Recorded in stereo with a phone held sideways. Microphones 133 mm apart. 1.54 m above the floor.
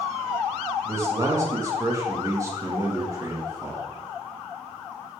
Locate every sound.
0.8 s a man speaking: 25° right (ahead or behind), 3 m